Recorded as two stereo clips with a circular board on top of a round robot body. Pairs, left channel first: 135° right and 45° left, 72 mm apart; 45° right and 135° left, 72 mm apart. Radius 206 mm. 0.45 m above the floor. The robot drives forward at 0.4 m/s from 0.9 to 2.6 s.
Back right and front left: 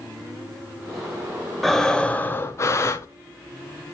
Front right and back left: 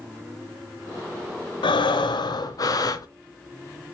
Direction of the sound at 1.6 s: 45° right.